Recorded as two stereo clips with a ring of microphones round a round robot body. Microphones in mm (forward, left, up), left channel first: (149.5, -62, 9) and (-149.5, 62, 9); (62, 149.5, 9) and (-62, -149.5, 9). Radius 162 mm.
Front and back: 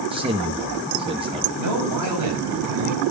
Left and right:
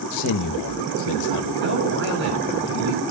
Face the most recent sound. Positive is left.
turn(degrees=-170)